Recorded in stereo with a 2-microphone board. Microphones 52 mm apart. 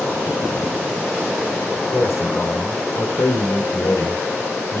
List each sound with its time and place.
1.9 s a man speaking: 65° left (ahead or behind), 5 m; by 4.8 s 70° left (ahead or behind), 3.5 m